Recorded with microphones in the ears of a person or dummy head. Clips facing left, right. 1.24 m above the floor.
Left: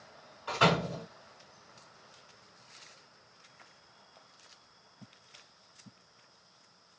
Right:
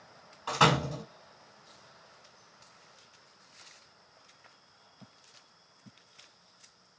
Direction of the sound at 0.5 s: 75° right (ahead or behind).